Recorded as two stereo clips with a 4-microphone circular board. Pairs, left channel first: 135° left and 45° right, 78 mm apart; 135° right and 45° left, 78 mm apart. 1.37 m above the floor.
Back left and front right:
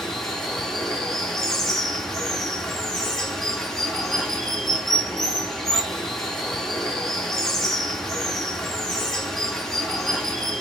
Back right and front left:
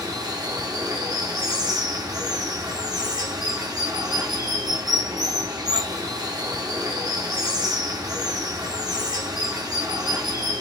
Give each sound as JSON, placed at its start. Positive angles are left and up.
{"t": 0.0, "sound": "running water", "azimuth_deg": 50, "distance_m": 1.1}